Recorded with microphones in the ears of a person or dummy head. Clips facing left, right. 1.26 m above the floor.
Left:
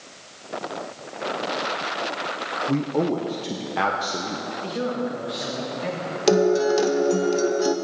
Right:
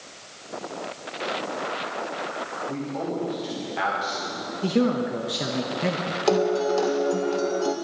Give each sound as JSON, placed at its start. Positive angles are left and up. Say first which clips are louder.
{"t": 2.7, "sound": "a man speaking", "louder": "left 8 dB", "side_deg": 60, "distance_m": 0.9}
{"t": 4.6, "sound": "a man speaking", "louder": "right 6 dB", "side_deg": -45, "distance_m": 0.8}
{"t": 6.3, "sound": "a guitar", "louder": "left 4 dB", "side_deg": 20, "distance_m": 0.6}